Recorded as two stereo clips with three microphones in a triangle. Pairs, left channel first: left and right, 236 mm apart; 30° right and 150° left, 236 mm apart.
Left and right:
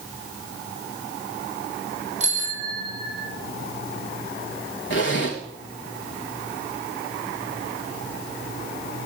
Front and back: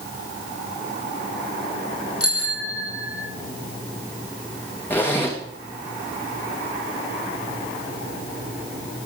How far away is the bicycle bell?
About 3.5 m.